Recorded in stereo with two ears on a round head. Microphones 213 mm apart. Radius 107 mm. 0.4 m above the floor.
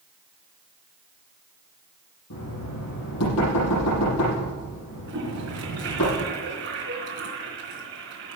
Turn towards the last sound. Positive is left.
turn(degrees=-55)  # may be behind; listen again after turning